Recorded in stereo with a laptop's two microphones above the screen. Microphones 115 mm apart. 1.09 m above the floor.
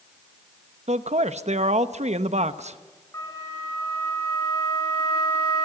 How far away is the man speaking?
About 0.9 m.